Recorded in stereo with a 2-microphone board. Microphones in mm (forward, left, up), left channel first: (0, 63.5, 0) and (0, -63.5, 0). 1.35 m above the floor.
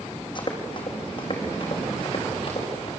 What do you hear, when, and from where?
0.3 s running footsteps: 40° left (ahead or behind), 4 m; by 2.9 s 45° left (ahead or behind), 7.5 m